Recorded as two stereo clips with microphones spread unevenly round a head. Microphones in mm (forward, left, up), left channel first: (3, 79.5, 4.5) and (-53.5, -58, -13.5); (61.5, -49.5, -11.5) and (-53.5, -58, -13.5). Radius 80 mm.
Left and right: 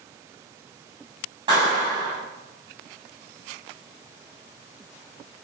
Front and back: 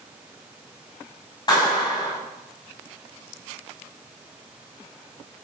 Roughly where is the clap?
Ahead right.